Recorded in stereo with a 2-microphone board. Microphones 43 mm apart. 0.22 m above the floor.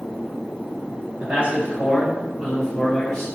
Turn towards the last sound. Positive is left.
turn(degrees=10)  # may be behind; listen again after turning